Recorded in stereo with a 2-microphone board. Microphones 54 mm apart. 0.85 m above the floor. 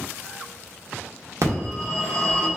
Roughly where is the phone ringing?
Right.